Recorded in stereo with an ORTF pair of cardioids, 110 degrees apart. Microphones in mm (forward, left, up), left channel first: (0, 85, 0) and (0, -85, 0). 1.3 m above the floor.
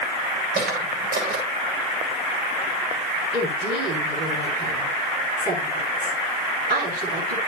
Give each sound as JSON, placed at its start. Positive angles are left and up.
{"t": 0.6, "sound": "footsteps", "azimuth_deg": -70, "distance_m": 8.5}
{"t": 3.3, "sound": "a woman speaking", "azimuth_deg": -70, "distance_m": 8.0}